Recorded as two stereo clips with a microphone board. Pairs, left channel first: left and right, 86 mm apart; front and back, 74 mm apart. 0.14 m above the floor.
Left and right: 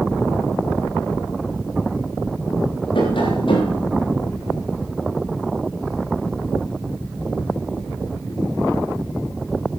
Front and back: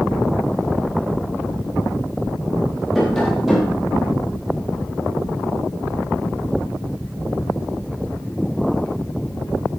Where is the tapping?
90° left, 10 m.